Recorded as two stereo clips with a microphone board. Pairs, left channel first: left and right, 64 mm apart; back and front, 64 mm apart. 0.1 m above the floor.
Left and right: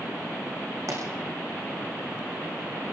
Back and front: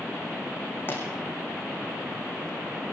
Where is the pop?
125° right, 6 m.